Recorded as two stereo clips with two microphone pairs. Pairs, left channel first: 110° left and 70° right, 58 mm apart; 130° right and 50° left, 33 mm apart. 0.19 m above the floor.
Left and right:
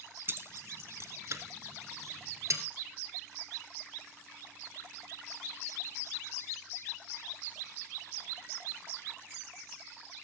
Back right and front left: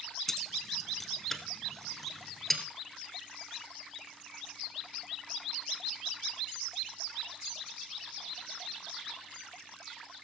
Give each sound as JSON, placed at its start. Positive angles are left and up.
{"t": 0.3, "sound": "keys jangling", "azimuth_deg": -55, "distance_m": 1.0}